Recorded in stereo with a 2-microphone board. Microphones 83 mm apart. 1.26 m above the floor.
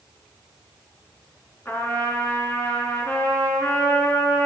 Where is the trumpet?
30° left (ahead or behind), 3 m.